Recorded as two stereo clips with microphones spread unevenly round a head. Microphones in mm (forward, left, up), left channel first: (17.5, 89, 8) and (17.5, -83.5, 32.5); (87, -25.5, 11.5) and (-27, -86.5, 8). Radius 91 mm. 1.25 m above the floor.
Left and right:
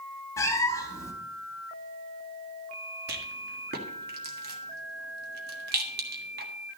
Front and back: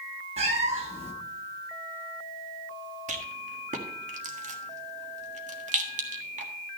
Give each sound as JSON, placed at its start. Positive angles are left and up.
{"t": 0.4, "sound": "a cat meowing", "azimuth_deg": 170, "distance_m": 1.0}
{"t": 3.1, "sound": "a rattle", "azimuth_deg": -125, "distance_m": 1.6}